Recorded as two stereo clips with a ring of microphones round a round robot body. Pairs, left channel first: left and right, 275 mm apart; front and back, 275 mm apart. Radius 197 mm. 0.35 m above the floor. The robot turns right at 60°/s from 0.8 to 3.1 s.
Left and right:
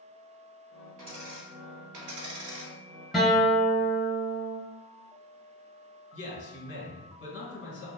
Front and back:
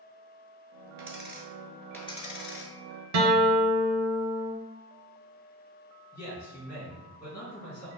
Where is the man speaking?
75° left, 1.9 m.